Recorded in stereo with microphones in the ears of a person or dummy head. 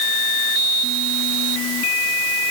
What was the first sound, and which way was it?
Only background noise.